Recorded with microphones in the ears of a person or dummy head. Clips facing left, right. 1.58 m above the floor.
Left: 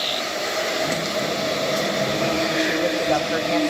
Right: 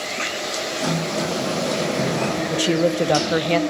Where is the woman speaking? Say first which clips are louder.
Right 3 dB; 40° right (ahead or behind), 0.7 m.